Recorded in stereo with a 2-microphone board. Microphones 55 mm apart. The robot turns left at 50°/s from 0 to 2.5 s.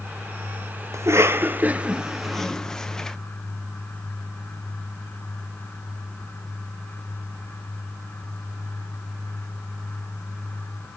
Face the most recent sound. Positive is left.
turn(degrees=10)  # may be behind; listen again after turning